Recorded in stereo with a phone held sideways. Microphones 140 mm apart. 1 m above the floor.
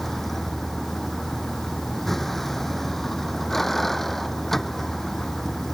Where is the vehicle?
Centre (ahead or behind).